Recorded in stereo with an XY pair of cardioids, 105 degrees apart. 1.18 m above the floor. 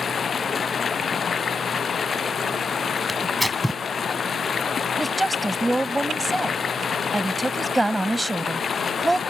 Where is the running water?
40° left.